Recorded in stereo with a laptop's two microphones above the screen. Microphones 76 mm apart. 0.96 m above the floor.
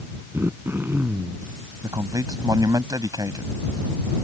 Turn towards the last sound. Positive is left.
turn(degrees=-50)  # may be behind; listen again after turning